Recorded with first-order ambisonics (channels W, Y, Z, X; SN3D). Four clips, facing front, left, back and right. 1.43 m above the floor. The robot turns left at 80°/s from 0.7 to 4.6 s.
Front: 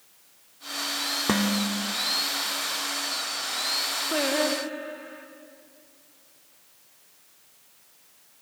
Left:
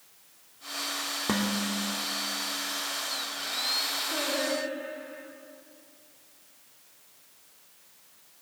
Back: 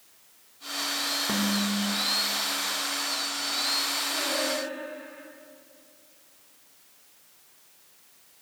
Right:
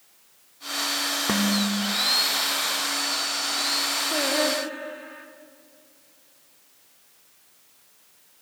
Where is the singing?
25° right, 2 m; by 5.3 s 65° right, 2 m.